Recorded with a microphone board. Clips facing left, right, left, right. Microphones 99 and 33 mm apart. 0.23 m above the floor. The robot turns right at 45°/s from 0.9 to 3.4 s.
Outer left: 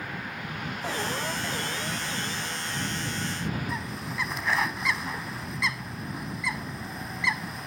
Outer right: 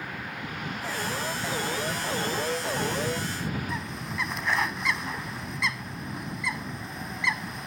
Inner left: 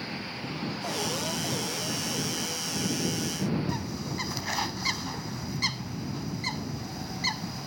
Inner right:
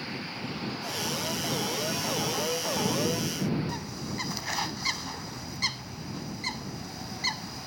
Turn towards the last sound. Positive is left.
turn(degrees=0)  # may be behind; listen again after turning